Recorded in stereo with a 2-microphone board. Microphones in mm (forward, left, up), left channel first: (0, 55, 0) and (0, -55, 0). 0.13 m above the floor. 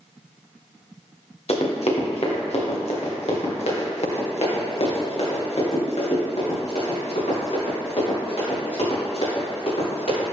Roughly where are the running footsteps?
Left.